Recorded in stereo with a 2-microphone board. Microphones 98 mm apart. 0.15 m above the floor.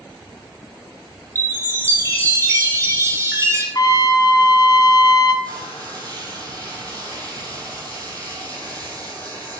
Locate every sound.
1.4 s a chime: 30° right (ahead or behind), 1.1 m
3.8 s a trumpet: 45° left (ahead or behind), 0.6 m
5.4 s frying: 45° right (ahead or behind), 1.7 m